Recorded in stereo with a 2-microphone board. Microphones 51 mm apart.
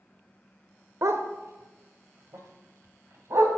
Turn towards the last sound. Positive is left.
turn(degrees=-65)  # may be behind; listen again after turning